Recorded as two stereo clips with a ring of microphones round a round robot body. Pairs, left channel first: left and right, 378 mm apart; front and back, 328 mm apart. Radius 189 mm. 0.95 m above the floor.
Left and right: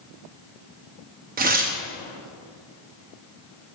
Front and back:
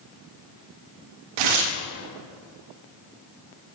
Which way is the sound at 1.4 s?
160° right.